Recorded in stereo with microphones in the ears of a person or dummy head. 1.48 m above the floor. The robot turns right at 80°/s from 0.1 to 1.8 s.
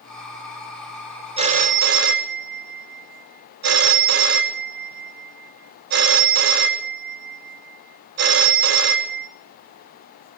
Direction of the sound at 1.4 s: 150° right.